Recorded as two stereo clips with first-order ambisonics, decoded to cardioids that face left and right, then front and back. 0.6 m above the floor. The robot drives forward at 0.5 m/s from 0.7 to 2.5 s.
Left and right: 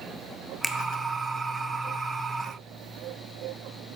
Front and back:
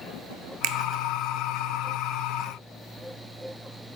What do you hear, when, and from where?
0.6 s a finger snap: 175° right, 0.9 m